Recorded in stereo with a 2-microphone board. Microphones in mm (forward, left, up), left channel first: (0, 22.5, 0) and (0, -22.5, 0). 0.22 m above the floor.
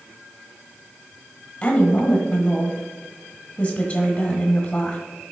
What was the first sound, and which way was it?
A woman speaking, 20° left (ahead or behind).